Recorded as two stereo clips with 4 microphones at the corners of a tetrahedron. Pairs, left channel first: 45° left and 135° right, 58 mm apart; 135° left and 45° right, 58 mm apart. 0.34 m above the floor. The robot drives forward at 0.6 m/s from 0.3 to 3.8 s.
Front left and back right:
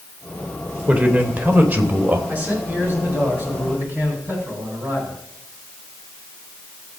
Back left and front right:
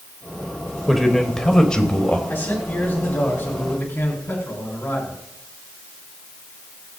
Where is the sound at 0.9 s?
145° right, 1.3 m; by 2.2 s 165° right, 1.7 m.